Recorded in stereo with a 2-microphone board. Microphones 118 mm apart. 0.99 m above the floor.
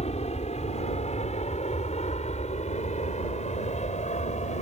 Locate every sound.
0.0 s an aircraft: 65° left (ahead or behind); by 4.6 s 75° left (ahead or behind)